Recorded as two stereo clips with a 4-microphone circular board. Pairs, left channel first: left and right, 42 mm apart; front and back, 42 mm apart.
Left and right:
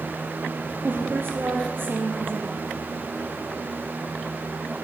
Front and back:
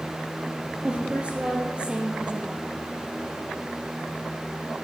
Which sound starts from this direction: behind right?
A woman speaking, at 0.8 s.